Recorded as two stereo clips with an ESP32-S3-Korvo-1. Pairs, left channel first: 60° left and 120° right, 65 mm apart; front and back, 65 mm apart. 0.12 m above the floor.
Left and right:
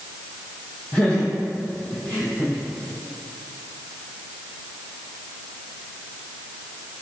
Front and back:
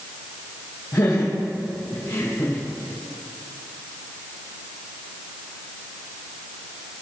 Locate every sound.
0.9 s laughter: 5° right, 3 m; by 2.6 s 10° left, 4 m